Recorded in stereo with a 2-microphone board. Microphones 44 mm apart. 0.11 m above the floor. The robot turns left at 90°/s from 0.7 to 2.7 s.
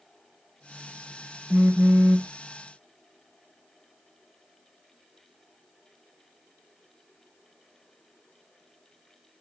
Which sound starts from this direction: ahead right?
A phone buzzing, at 1.5 s.